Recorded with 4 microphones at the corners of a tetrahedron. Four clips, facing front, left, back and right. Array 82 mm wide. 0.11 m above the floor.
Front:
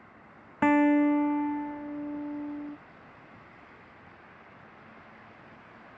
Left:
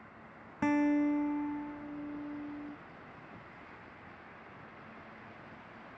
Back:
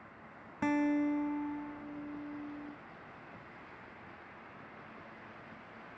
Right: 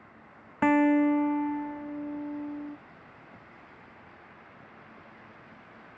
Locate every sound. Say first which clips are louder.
0.6 s a guitar: right 7 dB, front 9 dB; 45° right